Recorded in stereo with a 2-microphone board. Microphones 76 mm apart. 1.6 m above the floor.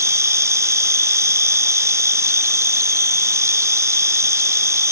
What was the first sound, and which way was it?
An insect, 40° right (ahead or behind).